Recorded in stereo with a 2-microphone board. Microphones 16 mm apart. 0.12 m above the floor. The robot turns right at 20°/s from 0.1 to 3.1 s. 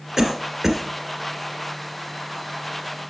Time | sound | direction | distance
0.2 | a cough | 25° right (ahead or behind) | 1.5 m